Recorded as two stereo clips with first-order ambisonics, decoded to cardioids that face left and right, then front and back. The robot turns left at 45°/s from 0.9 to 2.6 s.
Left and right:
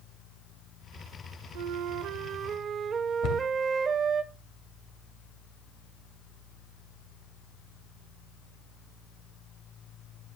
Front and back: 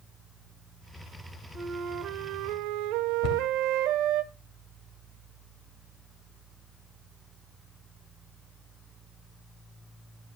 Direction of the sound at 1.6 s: 105° right.